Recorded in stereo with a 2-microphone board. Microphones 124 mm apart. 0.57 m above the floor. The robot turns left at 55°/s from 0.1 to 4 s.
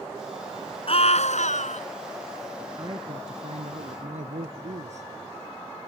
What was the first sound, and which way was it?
A scream, 125° left.